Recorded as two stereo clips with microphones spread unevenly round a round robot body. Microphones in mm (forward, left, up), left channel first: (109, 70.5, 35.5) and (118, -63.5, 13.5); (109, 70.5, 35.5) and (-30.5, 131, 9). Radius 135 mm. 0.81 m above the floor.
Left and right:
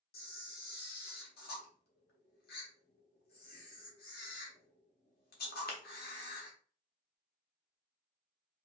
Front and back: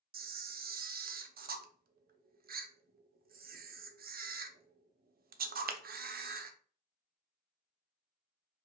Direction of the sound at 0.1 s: 130° left.